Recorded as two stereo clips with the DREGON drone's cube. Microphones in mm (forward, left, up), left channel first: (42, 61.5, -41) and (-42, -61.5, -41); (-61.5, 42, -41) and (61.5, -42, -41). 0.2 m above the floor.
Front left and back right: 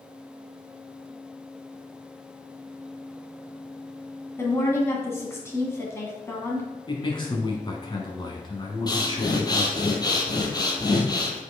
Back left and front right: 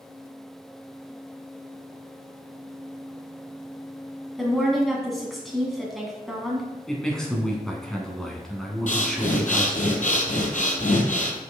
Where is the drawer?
No drawer in this recording.